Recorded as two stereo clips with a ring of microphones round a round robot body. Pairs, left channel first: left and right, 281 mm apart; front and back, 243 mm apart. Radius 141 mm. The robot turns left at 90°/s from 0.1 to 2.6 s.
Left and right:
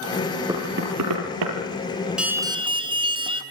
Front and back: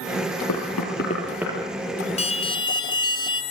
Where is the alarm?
5° right, 2 m; by 3.4 s 45° right, 2 m.